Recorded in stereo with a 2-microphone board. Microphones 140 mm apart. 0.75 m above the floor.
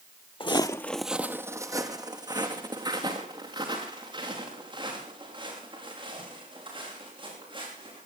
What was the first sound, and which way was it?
Footsteps, 40° left (ahead or behind).